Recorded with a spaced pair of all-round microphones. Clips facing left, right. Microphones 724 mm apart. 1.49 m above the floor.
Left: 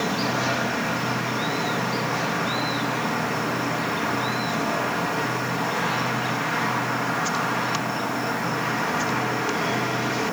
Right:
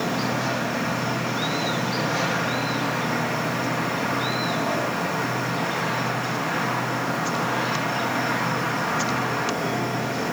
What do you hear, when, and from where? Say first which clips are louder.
0.0 s an insect: even; 10° right (ahead or behind), 8.5 m